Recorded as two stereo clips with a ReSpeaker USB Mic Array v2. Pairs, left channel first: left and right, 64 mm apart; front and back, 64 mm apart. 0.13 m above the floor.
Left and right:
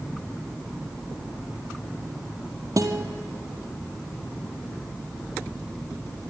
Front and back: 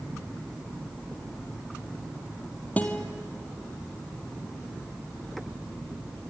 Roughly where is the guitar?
Ahead right.